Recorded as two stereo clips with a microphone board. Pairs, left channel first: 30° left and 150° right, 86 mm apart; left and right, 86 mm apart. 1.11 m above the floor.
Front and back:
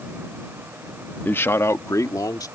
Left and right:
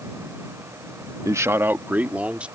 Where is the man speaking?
40° right; by 2.5 s 15° right.